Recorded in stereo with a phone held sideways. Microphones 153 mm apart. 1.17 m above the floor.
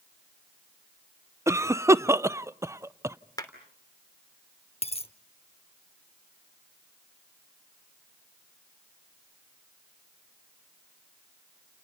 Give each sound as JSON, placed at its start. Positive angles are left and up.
{"t": 1.5, "sound": "a cough", "side_deg": -15, "distance_m": 0.5}
{"t": 3.4, "sound": "a clap", "side_deg": 25, "distance_m": 3.0}
{"t": 4.8, "sound": "a dropped coin", "side_deg": 40, "distance_m": 0.9}